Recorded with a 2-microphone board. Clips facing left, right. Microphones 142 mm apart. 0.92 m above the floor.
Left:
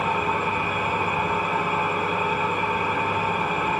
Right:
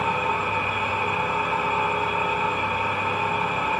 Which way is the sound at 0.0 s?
55° left (ahead or behind).